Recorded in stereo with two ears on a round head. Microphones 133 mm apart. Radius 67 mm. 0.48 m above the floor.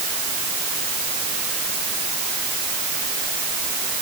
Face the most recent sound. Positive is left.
No sound to turn to.